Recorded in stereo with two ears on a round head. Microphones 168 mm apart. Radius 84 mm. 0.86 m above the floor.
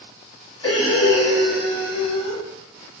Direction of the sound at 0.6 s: 30° left (ahead or behind).